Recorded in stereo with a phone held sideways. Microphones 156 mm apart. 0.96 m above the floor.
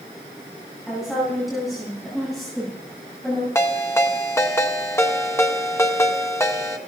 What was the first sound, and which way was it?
A woman speaking, centre (ahead or behind).